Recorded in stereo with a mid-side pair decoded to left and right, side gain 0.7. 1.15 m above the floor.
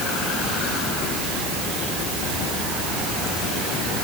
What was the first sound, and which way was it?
Only background noise.